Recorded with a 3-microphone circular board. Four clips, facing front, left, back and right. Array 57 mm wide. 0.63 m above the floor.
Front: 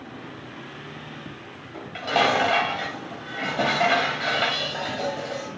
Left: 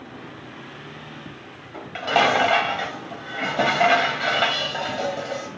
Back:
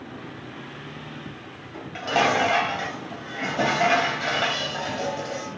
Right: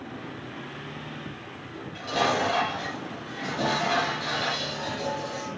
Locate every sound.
1.7 s dishes clattering: 80° left, 2.5 m